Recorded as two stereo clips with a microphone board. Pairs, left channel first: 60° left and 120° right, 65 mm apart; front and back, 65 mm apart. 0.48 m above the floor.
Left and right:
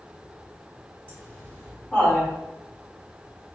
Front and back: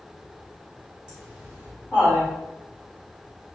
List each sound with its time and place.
1.1 s laughter: 110° left, 1.8 m; by 2.3 s 145° left, 2.0 m